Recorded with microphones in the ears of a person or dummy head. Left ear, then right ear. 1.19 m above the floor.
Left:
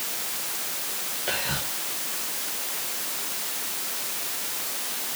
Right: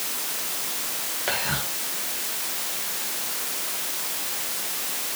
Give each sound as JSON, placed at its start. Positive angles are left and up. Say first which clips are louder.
{"t": 1.3, "sound": "whispering", "louder": "right 2 dB", "side_deg": -10, "distance_m": 1.0}